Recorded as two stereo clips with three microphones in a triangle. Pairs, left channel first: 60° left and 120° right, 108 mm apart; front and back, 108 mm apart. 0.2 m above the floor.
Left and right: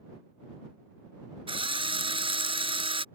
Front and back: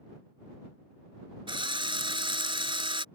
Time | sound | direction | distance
1.5 | a drill | 145° right | ?